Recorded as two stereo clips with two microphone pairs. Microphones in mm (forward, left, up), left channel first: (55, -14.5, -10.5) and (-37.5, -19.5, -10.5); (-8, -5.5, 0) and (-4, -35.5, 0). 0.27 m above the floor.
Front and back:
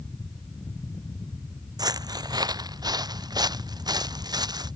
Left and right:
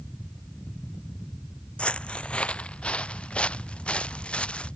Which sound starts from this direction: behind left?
Footsteps, at 1.8 s.